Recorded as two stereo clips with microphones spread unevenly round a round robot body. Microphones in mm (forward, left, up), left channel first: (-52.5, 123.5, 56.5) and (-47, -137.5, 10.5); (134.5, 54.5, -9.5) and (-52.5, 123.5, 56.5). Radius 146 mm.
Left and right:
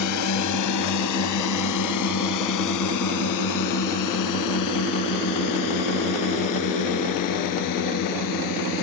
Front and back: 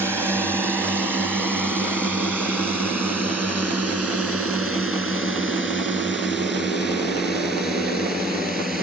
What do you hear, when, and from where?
0.0 s a drone: 70° left